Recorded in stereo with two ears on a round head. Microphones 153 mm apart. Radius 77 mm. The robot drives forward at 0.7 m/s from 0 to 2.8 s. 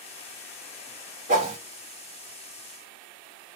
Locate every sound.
1.3 s a whoosh: 45° right (ahead or behind), 2.0 m; by 1.6 s 40° right (ahead or behind), 2 m